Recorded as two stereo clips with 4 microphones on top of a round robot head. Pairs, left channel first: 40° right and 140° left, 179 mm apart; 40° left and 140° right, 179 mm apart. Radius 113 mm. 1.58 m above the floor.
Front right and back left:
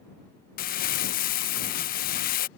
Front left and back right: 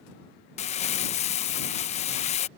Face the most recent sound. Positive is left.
turn(degrees=-5)